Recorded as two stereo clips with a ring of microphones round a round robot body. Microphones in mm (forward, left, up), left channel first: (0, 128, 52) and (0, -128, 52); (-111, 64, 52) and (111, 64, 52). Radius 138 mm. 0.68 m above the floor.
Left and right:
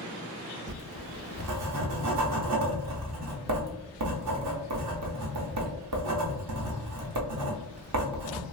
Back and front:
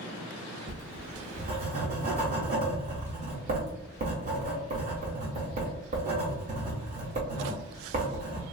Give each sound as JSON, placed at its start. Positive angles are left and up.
{"t": 0.7, "sound": "writing", "azimuth_deg": -60, "distance_m": 0.7}